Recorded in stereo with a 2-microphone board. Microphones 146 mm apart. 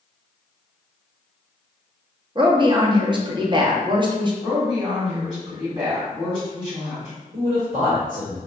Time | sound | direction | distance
2.4 | a woman speaking | 30° right (ahead or behind) | 0.6 m
4.4 | a woman speaking | 25° right (ahead or behind) | 1.5 m
7.3 | a man speaking | 65° right (ahead or behind) | 1.4 m